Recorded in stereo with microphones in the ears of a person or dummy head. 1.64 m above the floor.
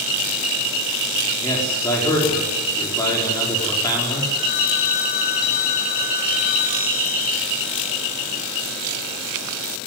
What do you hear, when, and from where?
1.4 s a man speaking: 20° left (ahead or behind), 5 m
4.4 s a phone ringing: 45° left (ahead or behind), 1.2 m